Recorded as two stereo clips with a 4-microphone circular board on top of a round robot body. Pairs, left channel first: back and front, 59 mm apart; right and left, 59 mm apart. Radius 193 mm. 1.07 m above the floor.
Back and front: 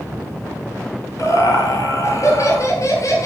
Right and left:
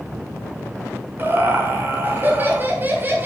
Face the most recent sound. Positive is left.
turn(degrees=150)